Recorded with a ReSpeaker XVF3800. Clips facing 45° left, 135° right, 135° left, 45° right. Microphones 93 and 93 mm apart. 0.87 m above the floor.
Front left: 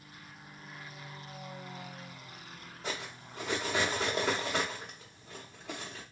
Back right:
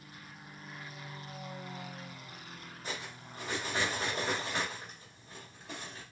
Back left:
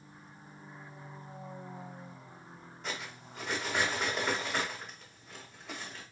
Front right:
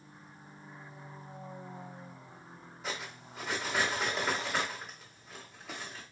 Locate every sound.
2.8 s cutlery clinking: 40° left, 1.5 m